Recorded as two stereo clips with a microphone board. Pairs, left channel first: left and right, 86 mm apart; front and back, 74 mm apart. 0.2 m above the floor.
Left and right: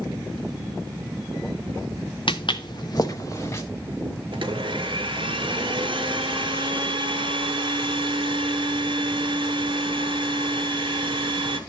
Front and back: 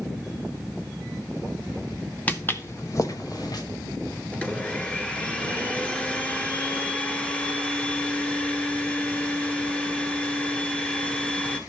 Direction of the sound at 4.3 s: 75° right.